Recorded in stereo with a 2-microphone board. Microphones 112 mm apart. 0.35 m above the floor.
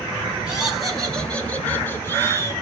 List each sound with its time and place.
0.5 s laughter: 5° right (ahead or behind), 5 m; by 2.5 s 25° left (ahead or behind), 6 m